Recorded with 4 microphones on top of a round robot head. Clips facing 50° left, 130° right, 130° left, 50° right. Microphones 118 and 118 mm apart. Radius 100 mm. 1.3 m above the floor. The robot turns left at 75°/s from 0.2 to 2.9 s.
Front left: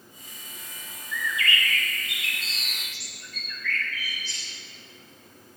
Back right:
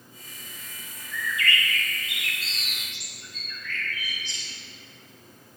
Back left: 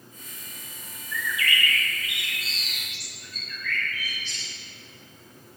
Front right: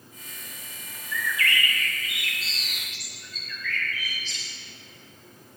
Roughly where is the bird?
Left.